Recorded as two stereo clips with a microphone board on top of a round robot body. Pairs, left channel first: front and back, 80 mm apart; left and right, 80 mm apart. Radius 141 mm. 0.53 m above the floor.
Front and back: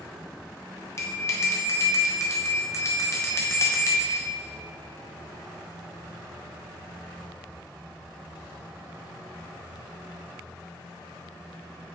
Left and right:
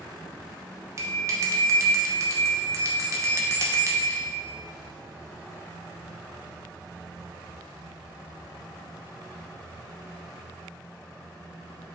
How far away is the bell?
About 2 m.